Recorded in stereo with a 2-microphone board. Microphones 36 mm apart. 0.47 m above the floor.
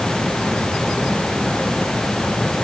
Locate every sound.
Only background noise.